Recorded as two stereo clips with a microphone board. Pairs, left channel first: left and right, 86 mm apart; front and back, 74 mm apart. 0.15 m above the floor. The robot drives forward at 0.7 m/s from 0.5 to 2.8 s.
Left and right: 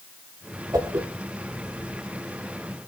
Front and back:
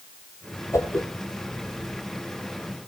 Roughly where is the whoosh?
Ahead right.